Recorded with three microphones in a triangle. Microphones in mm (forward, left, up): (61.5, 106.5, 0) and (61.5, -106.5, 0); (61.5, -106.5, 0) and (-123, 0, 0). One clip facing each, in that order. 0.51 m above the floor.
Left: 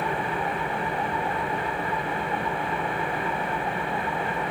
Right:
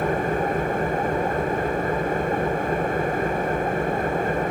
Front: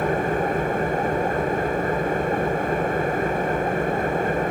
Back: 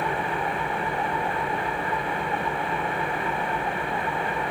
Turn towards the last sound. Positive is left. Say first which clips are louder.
# right 6 dB, front 6 dB
turn(degrees=-60)